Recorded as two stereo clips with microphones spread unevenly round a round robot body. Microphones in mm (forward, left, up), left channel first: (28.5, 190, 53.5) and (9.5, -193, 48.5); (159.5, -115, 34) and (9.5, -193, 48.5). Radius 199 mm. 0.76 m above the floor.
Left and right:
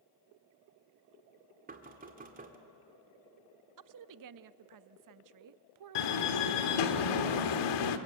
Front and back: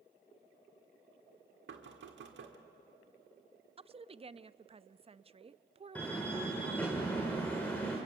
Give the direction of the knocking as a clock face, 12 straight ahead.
5 o'clock.